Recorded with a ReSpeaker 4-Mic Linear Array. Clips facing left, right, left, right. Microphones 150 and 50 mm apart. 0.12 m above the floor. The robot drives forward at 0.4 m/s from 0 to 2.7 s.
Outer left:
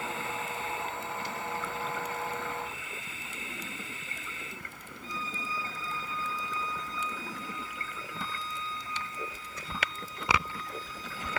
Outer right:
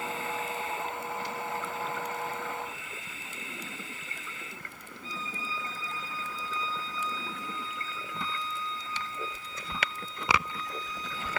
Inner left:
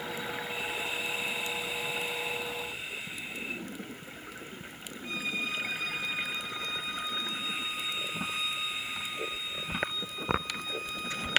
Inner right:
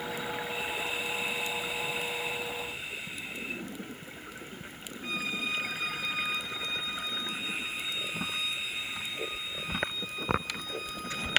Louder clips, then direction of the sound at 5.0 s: Outer left 1 dB, inner right 1 dB; 70° right (ahead or behind).